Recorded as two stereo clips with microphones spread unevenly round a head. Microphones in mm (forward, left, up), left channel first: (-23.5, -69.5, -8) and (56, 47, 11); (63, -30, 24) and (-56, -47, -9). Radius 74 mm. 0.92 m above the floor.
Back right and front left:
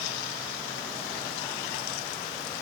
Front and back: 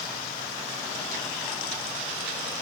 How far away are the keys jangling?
No keys jangling in this recording.